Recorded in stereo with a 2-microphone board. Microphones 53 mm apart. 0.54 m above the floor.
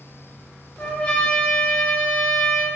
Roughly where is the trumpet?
Left.